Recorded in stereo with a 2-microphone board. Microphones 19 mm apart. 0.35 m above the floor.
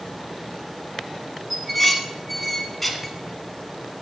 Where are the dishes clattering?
5° left (ahead or behind), 1.9 m.